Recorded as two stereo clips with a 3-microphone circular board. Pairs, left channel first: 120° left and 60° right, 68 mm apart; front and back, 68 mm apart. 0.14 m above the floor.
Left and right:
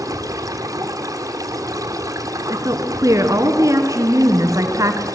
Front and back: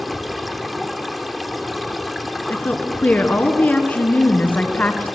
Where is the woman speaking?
60° right, 1.7 m.